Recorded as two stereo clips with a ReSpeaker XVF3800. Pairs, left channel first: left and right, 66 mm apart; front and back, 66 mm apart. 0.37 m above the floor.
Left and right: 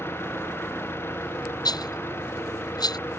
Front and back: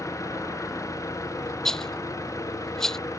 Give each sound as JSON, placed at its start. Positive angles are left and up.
{"t": 0.0, "sound": "an engine running", "azimuth_deg": 35}
{"t": 1.6, "sound": "a rattle", "azimuth_deg": 85}